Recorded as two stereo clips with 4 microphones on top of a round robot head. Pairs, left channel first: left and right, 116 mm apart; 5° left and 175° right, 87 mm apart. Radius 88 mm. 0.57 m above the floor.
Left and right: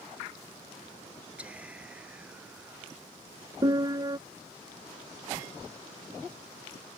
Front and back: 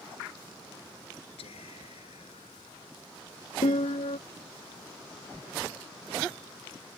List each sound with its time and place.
1.4 s whispering: 10° right
3.6 s a piano: 30° right